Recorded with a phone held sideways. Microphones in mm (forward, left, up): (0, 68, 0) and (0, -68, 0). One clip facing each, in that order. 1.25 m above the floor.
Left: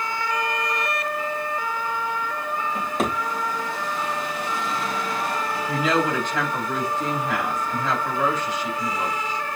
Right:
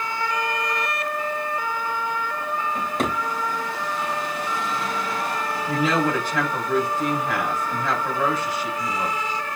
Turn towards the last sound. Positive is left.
turn(degrees=-10)  # may be behind; listen again after turning